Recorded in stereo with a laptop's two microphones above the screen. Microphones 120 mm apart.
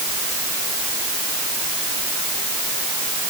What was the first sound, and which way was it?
Only background noise.